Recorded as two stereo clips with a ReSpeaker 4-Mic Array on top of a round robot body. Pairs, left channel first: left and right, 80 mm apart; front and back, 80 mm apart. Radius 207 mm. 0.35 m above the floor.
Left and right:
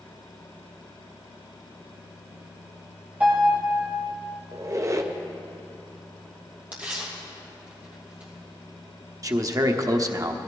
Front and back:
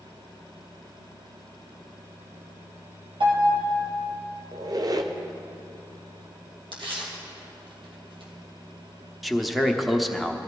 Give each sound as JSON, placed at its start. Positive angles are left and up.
{"t": 3.2, "sound": "a piano", "azimuth_deg": -160, "distance_m": 3.0}
{"t": 4.5, "sound": "a squeak", "azimuth_deg": -140, "distance_m": 1.0}
{"t": 6.7, "sound": "tearing paper", "azimuth_deg": -165, "distance_m": 2.5}
{"t": 9.2, "sound": "a man speaking", "azimuth_deg": -90, "distance_m": 1.3}